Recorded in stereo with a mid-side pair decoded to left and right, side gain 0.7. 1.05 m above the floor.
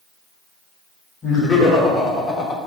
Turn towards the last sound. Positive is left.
turn(degrees=40)